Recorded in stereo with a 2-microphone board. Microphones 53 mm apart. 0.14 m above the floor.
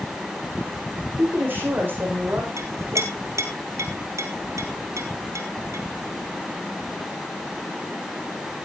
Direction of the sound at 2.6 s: 70° right (ahead or behind).